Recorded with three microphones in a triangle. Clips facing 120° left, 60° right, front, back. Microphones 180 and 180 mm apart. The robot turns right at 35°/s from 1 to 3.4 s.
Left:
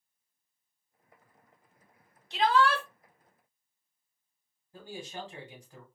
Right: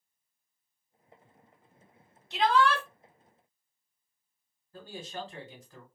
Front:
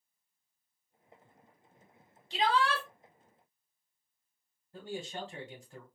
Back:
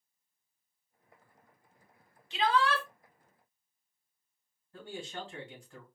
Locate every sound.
2.3 s a shout: 30° left, 1.7 m; by 2.8 s 45° left, 1.7 m
4.7 s a man speaking: 55° left, 1.8 m